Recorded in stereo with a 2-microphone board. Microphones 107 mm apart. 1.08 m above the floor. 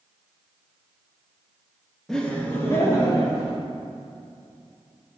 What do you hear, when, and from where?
2.1 s laughter: 5° left (ahead or behind), 1.6 m; by 3.6 s 40° left (ahead or behind), 3.5 m